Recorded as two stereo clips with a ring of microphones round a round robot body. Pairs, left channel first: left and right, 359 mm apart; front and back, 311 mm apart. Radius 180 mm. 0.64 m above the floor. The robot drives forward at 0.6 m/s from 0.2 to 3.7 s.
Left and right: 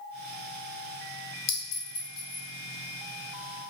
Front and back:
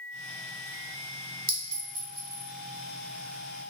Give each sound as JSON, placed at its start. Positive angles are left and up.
{"t": 1.5, "sound": "a clink", "azimuth_deg": 115, "distance_m": 1.4}